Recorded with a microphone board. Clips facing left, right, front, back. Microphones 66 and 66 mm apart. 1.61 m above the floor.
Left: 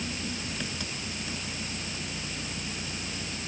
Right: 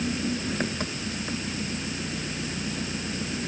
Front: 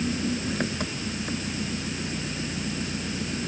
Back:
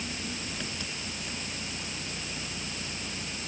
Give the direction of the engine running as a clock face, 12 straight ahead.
1 o'clock.